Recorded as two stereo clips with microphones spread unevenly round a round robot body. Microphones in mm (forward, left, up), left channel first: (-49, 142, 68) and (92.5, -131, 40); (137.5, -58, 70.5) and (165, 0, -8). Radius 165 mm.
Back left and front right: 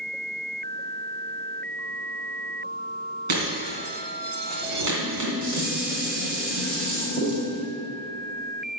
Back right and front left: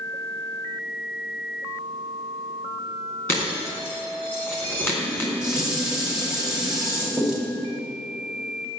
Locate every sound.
3.3 s breaking glass: 55° right, 3.5 m
5.0 s dishes clattering: straight ahead, 2.5 m